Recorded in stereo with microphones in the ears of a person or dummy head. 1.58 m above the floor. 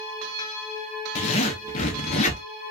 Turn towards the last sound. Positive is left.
turn(degrees=40)  # may be behind; listen again after turning